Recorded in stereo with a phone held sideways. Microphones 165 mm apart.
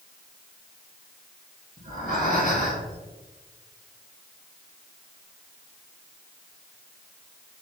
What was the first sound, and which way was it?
Breathing, 60° right (ahead or behind).